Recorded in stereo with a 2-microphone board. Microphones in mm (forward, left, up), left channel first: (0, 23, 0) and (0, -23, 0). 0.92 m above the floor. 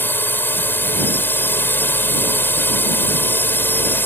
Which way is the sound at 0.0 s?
50° left (ahead or behind).